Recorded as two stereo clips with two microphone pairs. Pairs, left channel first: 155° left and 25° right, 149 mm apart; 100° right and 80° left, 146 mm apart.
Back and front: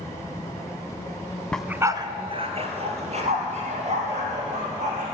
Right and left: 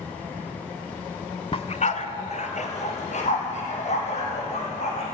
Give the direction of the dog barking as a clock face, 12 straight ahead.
4 o'clock.